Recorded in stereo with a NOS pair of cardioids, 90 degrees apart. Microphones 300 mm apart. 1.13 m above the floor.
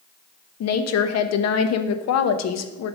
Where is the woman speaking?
65° left, 1.0 m.